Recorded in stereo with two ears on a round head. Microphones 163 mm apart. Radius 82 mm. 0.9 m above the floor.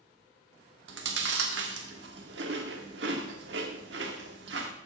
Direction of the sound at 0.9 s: 75° right (ahead or behind).